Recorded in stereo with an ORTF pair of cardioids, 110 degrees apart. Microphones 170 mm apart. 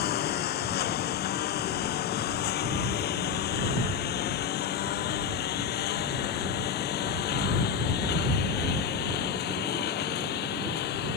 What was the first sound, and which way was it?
A lawn mower, 70° left.